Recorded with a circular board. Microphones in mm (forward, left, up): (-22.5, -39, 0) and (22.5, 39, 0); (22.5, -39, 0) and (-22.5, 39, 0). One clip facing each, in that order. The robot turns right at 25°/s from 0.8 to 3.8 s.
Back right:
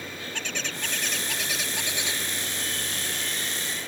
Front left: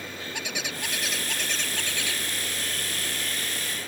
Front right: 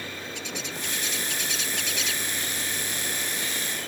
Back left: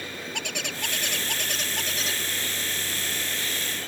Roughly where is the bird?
Behind left.